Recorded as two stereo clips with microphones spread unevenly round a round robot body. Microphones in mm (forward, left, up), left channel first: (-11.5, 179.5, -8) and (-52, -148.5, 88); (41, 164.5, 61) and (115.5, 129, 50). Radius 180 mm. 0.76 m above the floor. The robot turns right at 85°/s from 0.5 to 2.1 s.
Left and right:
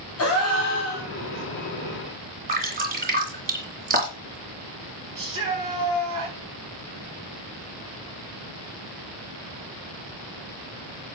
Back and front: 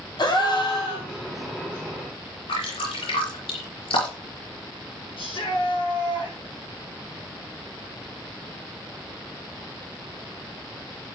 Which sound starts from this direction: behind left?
A gasp, at 0.2 s.